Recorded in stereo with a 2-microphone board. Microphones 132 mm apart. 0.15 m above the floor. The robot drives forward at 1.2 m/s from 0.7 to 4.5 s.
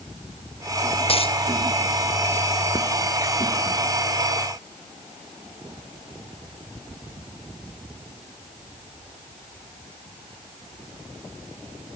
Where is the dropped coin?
45° left (ahead or behind).